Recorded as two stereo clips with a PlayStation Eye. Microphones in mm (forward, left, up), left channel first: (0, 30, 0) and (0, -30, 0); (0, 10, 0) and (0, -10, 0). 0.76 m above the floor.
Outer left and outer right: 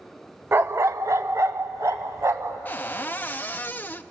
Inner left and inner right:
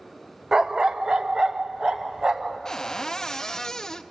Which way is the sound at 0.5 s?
40° right (ahead or behind).